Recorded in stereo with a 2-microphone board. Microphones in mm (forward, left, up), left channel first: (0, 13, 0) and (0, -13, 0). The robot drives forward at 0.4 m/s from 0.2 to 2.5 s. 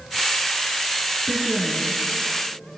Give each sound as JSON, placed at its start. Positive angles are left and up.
{"t": 1.3, "sound": "a woman speaking", "side_deg": 35, "distance_m": 3.0}